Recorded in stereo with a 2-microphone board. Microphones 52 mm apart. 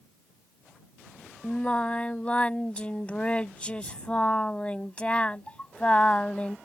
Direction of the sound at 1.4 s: 25° left (ahead or behind).